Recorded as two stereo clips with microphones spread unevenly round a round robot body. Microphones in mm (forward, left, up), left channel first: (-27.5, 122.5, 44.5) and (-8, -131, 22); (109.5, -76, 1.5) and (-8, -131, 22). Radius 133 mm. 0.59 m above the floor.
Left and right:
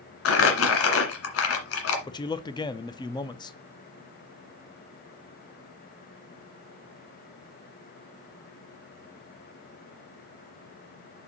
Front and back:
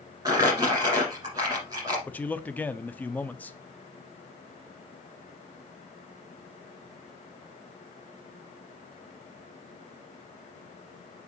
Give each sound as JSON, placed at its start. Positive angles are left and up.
{"t": 0.2, "sound": "crumpling", "azimuth_deg": 130, "distance_m": 1.8}
{"t": 2.1, "sound": "a man speaking", "azimuth_deg": 35, "distance_m": 0.5}